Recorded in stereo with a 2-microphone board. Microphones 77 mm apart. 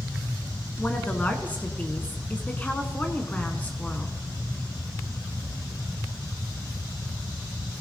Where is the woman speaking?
20° left (ahead or behind), 1.2 m.